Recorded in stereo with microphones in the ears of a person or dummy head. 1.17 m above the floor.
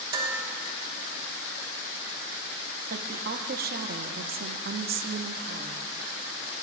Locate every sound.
0.1 s dishes clattering: 30° right (ahead or behind), 3 m
2.9 s a woman speaking: 55° right (ahead or behind), 0.9 m